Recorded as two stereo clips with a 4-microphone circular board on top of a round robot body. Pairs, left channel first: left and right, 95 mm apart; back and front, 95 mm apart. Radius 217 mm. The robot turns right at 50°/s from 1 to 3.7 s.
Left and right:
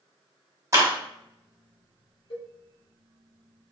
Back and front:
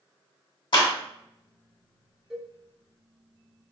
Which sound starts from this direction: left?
A cowbell, at 2.3 s.